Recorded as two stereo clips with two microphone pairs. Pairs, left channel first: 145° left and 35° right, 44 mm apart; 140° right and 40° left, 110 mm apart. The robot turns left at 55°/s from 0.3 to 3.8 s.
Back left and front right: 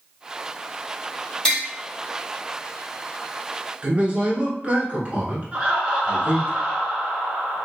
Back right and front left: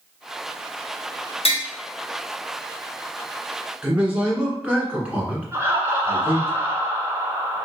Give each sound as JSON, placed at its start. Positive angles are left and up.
{"t": 1.4, "sound": "tapping", "azimuth_deg": -150, "distance_m": 1.7}
{"t": 3.8, "sound": "a man speaking", "azimuth_deg": -25, "distance_m": 1.3}
{"t": 5.5, "sound": "laughter", "azimuth_deg": 0, "distance_m": 1.1}